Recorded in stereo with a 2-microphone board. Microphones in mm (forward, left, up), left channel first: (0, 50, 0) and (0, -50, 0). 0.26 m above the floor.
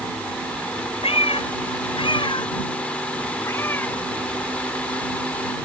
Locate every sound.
1.0 s a cat meowing: 75° left (ahead or behind); by 4.0 s 15° left (ahead or behind)